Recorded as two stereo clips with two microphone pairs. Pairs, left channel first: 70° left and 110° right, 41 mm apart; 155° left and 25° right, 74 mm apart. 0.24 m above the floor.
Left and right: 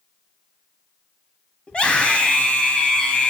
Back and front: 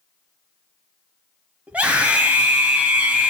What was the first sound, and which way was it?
A scream, 30° left.